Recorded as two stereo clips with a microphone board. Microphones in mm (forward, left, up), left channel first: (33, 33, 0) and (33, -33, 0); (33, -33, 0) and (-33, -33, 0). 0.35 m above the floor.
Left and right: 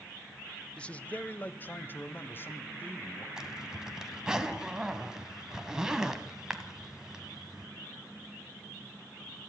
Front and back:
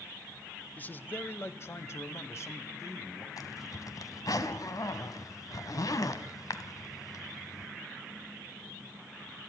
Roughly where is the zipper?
Ahead.